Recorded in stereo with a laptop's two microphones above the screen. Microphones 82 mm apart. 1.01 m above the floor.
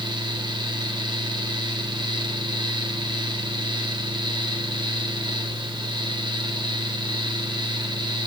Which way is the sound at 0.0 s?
70° right (ahead or behind).